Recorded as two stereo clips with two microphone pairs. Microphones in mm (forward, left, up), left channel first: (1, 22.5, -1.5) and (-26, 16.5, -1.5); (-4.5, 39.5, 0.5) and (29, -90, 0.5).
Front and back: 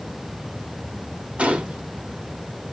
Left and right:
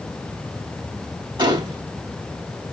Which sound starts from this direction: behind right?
A gunshot, at 1.4 s.